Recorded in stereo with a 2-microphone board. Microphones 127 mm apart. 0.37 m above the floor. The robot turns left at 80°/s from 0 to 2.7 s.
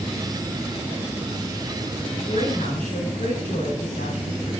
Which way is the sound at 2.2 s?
140° left.